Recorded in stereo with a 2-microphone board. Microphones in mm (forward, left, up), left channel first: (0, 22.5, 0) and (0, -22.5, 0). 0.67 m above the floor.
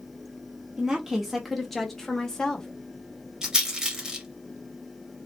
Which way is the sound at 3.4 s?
15° right (ahead or behind).